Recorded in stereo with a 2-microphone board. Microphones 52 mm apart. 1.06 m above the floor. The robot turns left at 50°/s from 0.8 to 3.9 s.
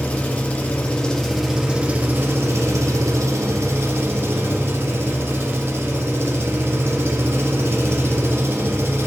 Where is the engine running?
30° left, 1.0 m; by 9.1 s 125° right, 1.0 m.